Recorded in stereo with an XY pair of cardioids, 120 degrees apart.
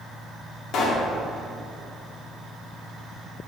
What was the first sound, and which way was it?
A pop, 60° left.